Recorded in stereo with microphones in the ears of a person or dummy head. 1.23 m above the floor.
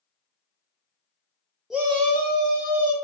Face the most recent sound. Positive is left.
turn(degrees=-70)  # may be behind; listen again after turning